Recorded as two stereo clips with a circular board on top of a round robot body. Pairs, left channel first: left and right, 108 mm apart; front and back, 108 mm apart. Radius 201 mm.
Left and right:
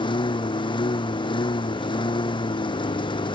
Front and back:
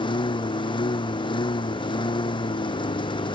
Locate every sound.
0.0 s a lawn mower: 45° left